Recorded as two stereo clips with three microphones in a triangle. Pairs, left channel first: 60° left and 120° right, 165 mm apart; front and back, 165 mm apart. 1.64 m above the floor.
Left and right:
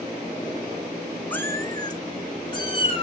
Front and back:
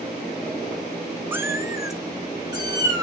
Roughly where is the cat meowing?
Behind left.